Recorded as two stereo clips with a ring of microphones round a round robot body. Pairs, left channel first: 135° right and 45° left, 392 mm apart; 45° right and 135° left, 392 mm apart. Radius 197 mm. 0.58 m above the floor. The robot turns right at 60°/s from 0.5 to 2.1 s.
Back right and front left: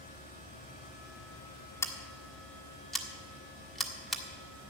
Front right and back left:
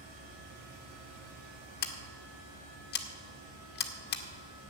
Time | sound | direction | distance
1.8 | scissors | 65° right | 1.2 m